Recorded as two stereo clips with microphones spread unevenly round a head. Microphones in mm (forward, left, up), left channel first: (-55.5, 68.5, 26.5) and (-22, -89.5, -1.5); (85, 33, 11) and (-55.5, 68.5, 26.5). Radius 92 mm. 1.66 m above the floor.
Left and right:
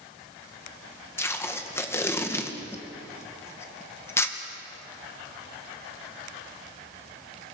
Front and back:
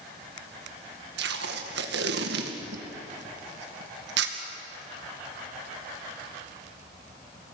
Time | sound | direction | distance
1.2 | tape being pulled | 175° left | 2.5 m